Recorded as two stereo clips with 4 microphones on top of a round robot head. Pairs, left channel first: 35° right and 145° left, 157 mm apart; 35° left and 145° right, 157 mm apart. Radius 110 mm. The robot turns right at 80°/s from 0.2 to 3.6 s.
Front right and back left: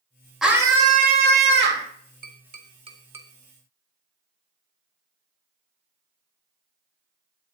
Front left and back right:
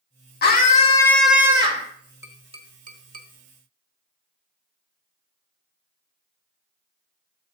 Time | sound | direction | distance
0.4 | a scream | 55° left | 2.5 m
2.2 | tapping | 145° left | 1.6 m